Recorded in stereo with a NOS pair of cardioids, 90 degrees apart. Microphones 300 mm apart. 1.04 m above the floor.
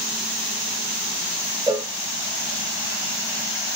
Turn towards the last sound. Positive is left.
turn(degrees=-10)